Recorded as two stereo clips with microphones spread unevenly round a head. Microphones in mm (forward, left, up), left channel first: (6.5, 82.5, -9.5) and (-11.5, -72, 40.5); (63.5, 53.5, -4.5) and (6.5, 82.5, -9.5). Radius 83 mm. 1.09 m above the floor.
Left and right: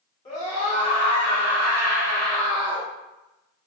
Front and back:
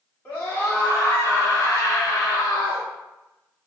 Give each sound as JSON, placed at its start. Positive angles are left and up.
{"t": 0.2, "sound": "a scream", "azimuth_deg": 40, "distance_m": 2.5}